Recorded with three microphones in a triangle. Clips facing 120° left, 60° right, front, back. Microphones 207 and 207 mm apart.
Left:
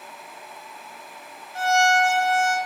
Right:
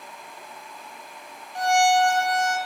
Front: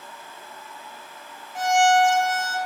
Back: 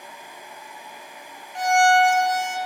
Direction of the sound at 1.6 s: 80° right.